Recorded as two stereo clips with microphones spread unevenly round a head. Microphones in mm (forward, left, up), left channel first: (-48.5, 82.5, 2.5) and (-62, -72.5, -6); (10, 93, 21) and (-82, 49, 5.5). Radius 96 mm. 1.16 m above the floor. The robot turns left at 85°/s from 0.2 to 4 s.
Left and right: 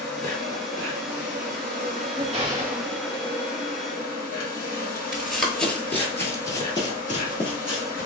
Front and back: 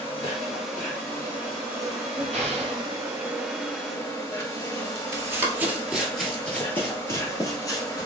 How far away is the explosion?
About 1.7 m.